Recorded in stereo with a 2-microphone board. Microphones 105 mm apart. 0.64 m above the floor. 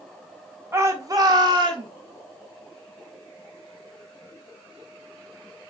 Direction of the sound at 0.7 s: 25° right (ahead or behind).